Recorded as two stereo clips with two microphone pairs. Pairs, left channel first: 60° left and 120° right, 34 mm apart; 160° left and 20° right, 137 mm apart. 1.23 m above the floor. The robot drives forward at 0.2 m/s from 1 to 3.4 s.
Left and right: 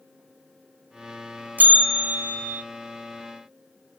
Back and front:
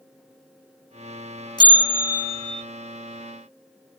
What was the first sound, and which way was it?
A bell, 145° right.